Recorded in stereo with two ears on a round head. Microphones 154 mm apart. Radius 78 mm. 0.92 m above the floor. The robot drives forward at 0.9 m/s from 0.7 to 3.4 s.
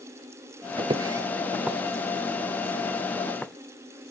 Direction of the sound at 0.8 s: 30° right (ahead or behind).